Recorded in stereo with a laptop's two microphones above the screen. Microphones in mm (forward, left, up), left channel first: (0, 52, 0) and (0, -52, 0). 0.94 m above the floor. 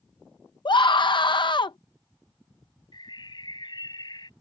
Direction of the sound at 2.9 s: 45° left (ahead or behind).